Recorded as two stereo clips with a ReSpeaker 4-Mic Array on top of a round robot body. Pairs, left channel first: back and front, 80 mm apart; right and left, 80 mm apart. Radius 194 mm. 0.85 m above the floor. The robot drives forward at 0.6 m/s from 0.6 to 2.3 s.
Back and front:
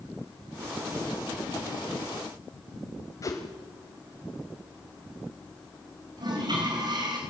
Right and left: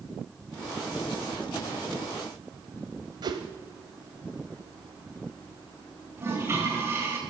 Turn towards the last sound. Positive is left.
turn(degrees=30)